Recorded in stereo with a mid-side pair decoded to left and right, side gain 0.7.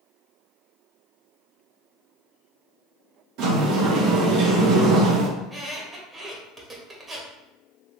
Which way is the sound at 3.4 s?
65° right.